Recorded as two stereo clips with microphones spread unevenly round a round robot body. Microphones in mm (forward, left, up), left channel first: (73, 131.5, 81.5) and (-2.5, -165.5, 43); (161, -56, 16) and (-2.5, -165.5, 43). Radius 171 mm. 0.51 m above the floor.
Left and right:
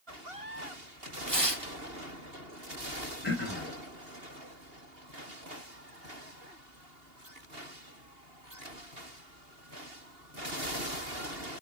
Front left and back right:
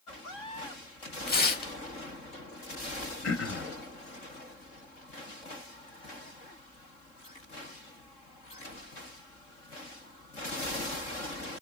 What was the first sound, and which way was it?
Tearing paper, 10° right.